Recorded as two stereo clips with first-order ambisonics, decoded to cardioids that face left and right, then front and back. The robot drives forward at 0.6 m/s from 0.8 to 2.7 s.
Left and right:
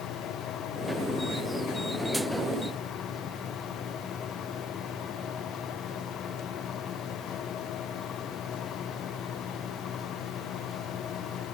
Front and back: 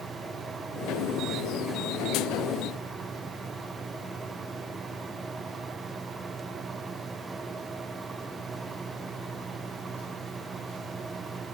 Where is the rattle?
I don't hear a rattle.